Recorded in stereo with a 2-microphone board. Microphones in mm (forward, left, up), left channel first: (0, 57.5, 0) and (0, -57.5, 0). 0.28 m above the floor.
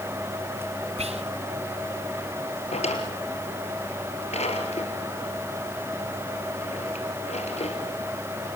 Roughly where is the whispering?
Right.